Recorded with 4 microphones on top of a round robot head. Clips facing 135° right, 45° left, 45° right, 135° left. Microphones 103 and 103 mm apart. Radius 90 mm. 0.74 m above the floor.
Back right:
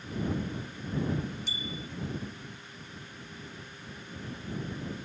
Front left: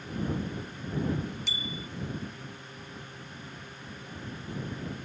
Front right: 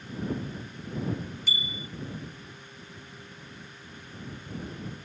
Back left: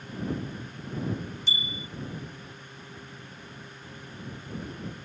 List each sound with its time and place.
1.5 s a bicycle bell: 70° left